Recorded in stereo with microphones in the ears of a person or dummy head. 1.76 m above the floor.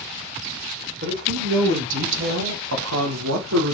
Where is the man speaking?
55° right (ahead or behind), 3.5 m; by 3.7 s 65° right (ahead or behind), 1.8 m.